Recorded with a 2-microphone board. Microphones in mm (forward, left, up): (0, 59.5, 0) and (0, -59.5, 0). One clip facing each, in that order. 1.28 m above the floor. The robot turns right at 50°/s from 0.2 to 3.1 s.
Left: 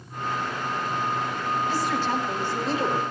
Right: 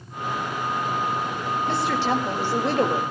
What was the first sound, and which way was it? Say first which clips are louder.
A woman speaking: right 5 dB; 120° right.